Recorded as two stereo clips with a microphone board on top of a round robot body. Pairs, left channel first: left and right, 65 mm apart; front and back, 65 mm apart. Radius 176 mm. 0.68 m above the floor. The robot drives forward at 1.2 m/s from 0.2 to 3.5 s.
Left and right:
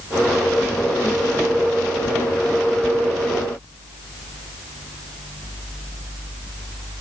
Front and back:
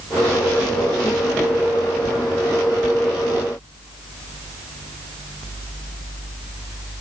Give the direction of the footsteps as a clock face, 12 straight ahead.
No footsteps in this recording.